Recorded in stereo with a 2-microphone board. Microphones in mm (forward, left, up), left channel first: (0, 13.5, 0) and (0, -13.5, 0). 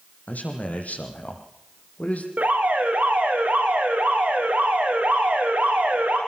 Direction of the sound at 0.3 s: 70° left (ahead or behind).